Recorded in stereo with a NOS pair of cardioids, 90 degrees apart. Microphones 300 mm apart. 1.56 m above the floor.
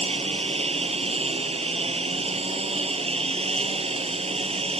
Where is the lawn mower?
20° right.